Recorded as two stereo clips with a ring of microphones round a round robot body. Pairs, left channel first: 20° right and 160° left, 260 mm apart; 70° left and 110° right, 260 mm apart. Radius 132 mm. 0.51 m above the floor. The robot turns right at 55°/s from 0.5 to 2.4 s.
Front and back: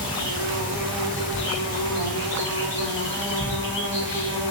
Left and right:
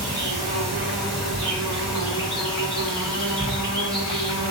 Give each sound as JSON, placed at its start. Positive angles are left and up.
{"t": 0.0, "sound": "an insect", "azimuth_deg": -60, "distance_m": 1.9}